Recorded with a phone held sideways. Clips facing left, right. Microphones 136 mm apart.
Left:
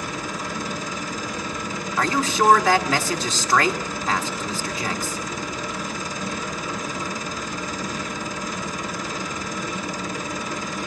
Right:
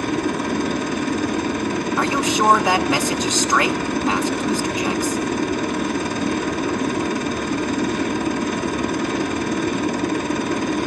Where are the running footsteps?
No running footsteps in this recording.